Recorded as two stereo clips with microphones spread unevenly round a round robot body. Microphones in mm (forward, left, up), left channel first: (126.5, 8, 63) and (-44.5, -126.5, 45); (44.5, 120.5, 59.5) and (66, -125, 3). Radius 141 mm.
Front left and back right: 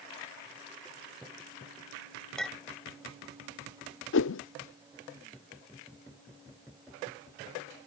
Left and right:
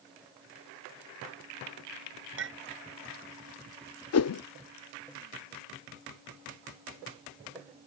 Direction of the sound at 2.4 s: 50° right.